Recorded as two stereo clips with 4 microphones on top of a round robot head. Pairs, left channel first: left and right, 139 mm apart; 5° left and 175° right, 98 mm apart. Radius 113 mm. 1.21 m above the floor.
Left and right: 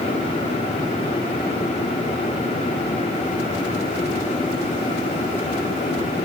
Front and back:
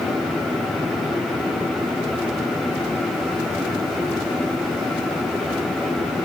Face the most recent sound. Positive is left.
No sound to turn to.